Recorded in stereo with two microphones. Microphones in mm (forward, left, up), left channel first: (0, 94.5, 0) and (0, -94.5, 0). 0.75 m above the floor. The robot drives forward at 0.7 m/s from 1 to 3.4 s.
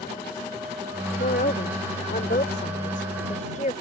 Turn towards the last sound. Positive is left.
turn(degrees=40)  # may be behind; listen again after turning